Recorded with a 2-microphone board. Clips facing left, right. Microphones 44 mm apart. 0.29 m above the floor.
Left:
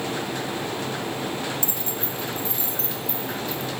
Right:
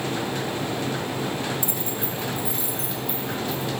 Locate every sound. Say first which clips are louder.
1.6 s keys jangling: right 1 dB; 15° right (ahead or behind), 1.3 m; by 3.7 s 5° right (ahead or behind), 3.5 m